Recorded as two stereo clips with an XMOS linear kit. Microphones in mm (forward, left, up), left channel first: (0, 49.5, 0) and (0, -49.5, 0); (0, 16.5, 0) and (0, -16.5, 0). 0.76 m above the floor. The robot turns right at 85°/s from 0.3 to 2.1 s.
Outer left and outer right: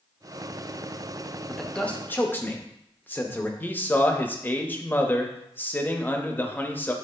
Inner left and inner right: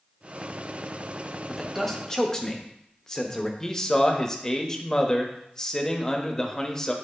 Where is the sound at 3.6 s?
20° left (ahead or behind), 0.8 m.